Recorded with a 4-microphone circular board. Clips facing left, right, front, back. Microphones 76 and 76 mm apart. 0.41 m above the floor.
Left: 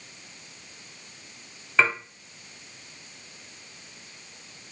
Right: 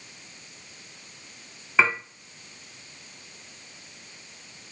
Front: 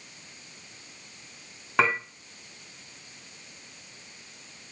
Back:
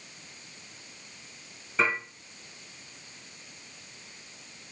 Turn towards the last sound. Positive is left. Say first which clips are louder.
# right 1 dB, front 3 dB
turn(degrees=-5)